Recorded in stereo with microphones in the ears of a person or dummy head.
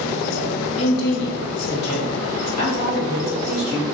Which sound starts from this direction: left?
A woman speaking, at 0.8 s.